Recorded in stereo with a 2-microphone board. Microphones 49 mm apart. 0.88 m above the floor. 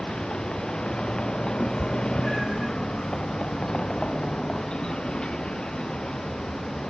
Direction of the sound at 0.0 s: 20° left (ahead or behind).